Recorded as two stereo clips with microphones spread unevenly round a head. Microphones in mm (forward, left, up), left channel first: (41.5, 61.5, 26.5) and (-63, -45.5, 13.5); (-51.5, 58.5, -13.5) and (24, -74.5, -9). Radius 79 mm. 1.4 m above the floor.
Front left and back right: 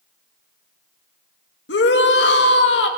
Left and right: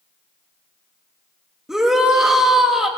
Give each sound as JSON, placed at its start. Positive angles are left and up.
{"t": 1.7, "sound": "a shout", "azimuth_deg": 25, "distance_m": 2.5}